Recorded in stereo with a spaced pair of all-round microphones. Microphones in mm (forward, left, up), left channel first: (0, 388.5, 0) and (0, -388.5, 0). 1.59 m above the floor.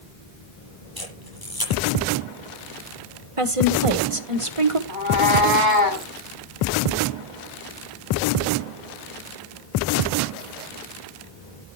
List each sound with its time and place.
1.0 s a camera shutter: 25° left (ahead or behind), 8 m
3.4 s a woman speaking: 40° right (ahead or behind), 1.6 m
4.9 s a cat meowing: 80° left, 7 m